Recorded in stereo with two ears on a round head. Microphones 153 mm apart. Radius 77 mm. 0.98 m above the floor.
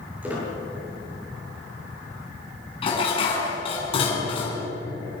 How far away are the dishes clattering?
About 6 m.